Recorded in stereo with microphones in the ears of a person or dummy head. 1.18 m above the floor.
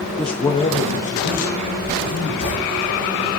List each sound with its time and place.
0.2 s a man speaking: centre (ahead or behind), 0.7 m; by 2.8 s 50° left (ahead or behind), 3.5 m
1.8 s writing: 45° left (ahead or behind), 4.5 m